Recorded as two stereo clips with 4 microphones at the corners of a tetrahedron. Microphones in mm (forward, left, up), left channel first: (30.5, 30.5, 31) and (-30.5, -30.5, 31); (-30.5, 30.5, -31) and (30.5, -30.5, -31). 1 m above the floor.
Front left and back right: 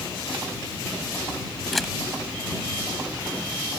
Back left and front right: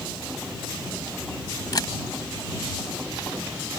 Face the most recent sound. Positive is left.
turn(degrees=135)